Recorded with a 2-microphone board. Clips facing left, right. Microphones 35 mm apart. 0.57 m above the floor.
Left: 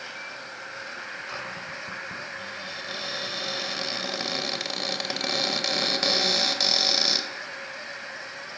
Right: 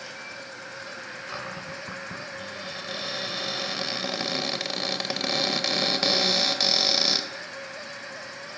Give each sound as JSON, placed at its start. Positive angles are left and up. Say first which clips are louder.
{"t": 0.0, "sound": "an insect", "louder": "left 1 dB", "side_deg": 20, "distance_m": 3.5}
{"t": 1.3, "sound": "a cupboard door", "louder": "even", "side_deg": 0, "distance_m": 2.0}